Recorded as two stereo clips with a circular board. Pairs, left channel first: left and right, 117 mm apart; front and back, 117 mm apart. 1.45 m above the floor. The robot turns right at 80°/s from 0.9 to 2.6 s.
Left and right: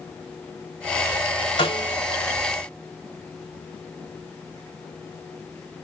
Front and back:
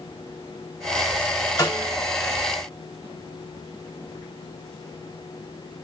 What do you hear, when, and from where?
1.6 s a snare drum: 55° left, 1.9 m; by 2.0 s 85° left, 1.9 m